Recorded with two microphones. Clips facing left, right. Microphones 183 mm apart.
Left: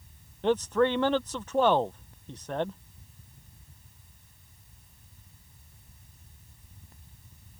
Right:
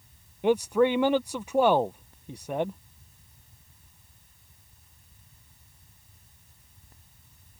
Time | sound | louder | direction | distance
0.4 | a man speaking | right 2 dB | 10° right (ahead or behind) | ?